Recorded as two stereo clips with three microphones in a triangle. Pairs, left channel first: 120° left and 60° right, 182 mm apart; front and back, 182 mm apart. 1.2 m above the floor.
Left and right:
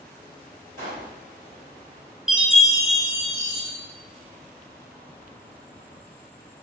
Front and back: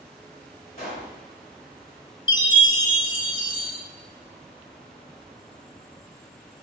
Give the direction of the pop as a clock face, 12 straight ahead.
1 o'clock.